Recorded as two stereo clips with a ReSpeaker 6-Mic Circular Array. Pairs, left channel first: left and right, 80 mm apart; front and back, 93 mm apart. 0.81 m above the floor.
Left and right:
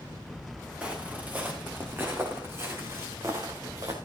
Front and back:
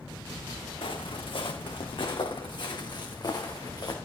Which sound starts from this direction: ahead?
Footsteps, at 0.8 s.